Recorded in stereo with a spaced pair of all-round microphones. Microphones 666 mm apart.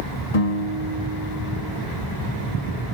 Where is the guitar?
65° left (ahead or behind), 4.5 m.